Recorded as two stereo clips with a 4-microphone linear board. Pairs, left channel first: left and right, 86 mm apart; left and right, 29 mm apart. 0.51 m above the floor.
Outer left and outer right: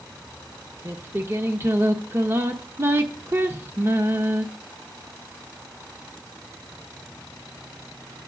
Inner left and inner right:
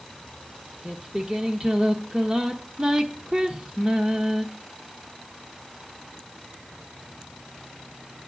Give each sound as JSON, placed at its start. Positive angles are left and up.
{"t": 0.8, "sound": "singing", "side_deg": -30, "distance_m": 1.0}